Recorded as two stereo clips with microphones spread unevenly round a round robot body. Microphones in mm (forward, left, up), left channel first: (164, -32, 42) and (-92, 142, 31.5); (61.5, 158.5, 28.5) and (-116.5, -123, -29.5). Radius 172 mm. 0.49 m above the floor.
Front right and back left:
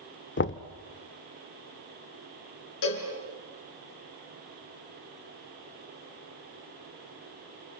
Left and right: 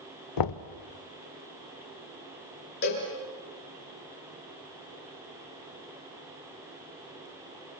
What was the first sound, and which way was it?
Knocking, 20° left.